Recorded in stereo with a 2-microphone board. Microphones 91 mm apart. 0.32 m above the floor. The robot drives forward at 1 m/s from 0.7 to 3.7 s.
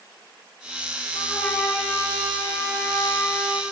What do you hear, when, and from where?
1.1 s a trumpet: 85° left, 3.5 m; by 3.6 s 50° left (ahead or behind), 4.5 m